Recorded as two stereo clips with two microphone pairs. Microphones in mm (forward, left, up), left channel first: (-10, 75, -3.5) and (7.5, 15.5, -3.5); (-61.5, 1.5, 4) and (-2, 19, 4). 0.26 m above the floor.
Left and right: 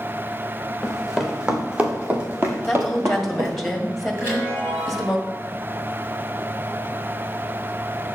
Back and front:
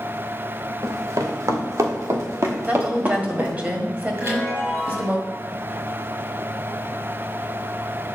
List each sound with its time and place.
0.8 s running footsteps: 15° left, 2.5 m; by 3.5 s 35° right, 2.5 m
2.7 s a woman speaking: 30° left, 1.6 m
4.2 s a chime: 15° right, 5 m